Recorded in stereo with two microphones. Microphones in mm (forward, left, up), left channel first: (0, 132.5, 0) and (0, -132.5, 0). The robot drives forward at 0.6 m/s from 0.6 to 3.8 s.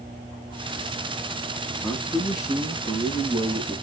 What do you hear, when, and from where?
1.8 s a man speaking: 10° left (ahead or behind), 6.5 m